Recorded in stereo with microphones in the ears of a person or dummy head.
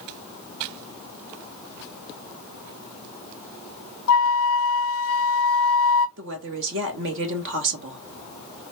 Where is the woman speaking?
65° right (ahead or behind), 1.6 m.